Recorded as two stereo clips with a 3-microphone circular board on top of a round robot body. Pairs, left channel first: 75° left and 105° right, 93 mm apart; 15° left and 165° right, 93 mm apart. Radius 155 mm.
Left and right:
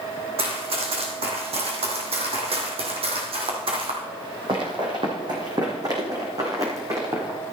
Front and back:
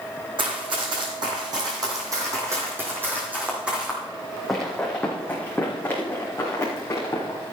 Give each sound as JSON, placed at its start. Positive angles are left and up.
{"t": 0.4, "sound": "running footsteps", "azimuth_deg": -130, "distance_m": 3.0}